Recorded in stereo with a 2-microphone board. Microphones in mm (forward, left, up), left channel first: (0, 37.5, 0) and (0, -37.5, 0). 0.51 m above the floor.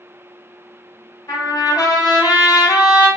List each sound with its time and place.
1.3 s a trumpet: 65° left (ahead or behind), 0.8 m